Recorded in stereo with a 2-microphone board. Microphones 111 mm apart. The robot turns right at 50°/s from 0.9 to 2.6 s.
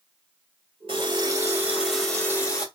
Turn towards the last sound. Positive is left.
turn(degrees=35)